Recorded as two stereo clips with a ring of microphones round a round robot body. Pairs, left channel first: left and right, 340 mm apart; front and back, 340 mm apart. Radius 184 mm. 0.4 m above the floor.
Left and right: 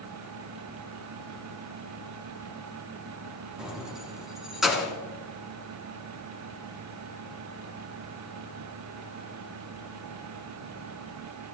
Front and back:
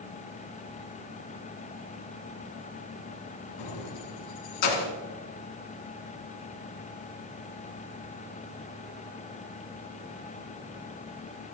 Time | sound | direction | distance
3.6 | keys jangling | straight ahead | 2.5 m